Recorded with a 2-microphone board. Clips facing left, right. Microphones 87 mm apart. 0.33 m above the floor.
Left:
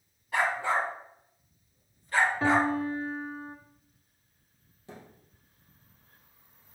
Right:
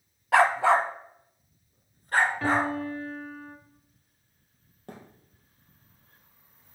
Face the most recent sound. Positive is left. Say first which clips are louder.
# right 2 dB
turn(degrees=-55)  # may be behind; listen again after turning